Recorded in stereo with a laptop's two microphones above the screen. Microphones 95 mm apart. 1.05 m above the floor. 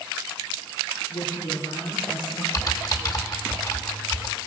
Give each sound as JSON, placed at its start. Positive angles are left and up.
{"t": 1.1, "sound": "a woman speaking", "side_deg": 60, "distance_m": 2.5}
{"t": 2.5, "sound": "typing on a keyboard", "side_deg": 40, "distance_m": 1.9}